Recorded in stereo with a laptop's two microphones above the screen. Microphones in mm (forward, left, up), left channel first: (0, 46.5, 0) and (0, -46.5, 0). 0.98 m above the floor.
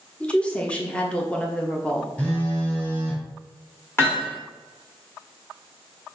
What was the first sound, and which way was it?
A woman speaking, 10° left (ahead or behind).